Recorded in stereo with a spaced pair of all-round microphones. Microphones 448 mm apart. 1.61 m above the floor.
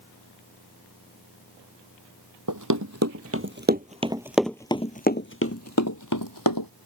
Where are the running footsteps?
45° right (ahead or behind); by 6.7 s 50° left (ahead or behind).